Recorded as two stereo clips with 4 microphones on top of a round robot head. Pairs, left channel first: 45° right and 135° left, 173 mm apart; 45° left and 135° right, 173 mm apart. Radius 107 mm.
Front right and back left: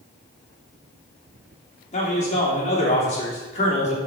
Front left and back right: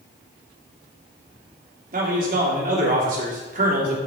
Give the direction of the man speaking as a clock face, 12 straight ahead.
3 o'clock.